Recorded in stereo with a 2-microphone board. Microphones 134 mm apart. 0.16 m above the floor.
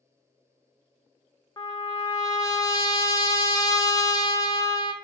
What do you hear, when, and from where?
1.6 s a trumpet: 30° left (ahead or behind), 0.6 m